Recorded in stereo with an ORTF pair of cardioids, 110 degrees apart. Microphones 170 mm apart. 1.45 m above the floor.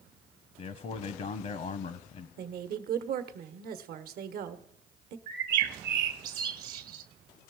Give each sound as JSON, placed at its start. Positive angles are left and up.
{"t": 0.6, "sound": "a man speaking", "azimuth_deg": 45, "distance_m": 0.8}
{"t": 2.4, "sound": "a woman speaking", "azimuth_deg": -65, "distance_m": 1.1}
{"t": 5.3, "sound": "a bird", "azimuth_deg": -60, "distance_m": 1.2}